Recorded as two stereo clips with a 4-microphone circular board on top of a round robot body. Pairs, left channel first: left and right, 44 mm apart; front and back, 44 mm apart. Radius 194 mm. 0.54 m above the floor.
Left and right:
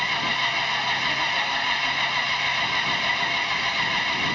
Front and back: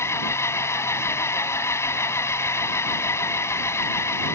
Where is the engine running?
Straight ahead.